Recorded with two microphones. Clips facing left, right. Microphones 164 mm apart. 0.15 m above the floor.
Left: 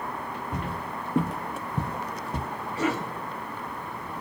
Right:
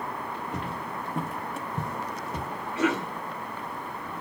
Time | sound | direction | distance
0.5 | footsteps | 50° left (ahead or behind) | 1.0 m
2.8 | a cough | 35° left (ahead or behind) | 1.4 m